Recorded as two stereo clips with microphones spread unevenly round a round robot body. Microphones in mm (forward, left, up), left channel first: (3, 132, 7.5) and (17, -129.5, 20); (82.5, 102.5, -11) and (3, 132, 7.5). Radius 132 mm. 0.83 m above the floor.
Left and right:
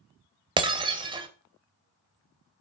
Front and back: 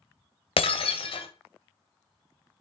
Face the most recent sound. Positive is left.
turn(degrees=-15)